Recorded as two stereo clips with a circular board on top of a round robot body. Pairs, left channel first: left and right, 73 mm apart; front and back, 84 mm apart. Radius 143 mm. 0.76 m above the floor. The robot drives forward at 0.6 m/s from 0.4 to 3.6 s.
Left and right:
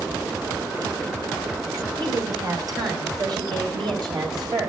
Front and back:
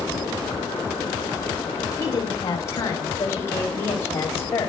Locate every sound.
2.0 s a woman speaking: 55° right, 6.5 m; by 4.7 s 60° right, 6 m